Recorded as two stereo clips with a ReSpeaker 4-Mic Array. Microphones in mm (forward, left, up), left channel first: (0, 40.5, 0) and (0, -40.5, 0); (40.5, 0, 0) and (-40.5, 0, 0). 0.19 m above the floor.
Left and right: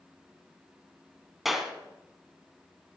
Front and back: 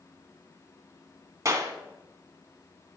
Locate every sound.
1.4 s a clap: 175° right, 1.1 m